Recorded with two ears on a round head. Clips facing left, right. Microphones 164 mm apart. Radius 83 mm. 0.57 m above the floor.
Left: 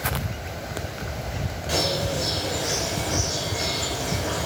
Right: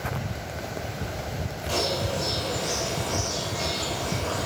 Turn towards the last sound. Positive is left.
turn(degrees=15)  # may be behind; listen again after turning